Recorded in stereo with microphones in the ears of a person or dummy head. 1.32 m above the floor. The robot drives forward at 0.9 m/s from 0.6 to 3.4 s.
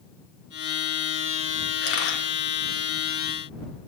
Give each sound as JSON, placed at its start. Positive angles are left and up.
{"t": 1.8, "sound": "a camera shutter", "side_deg": 70, "distance_m": 4.0}